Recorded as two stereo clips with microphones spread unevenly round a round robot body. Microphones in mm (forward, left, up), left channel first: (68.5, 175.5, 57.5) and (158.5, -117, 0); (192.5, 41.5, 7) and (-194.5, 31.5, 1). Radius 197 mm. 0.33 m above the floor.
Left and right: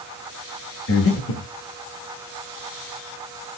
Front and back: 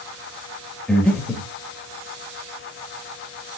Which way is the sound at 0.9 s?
90° left.